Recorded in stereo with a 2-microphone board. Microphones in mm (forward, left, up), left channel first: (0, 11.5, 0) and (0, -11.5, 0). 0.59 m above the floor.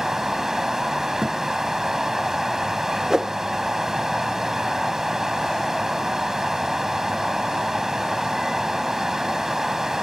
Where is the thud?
45° right (ahead or behind).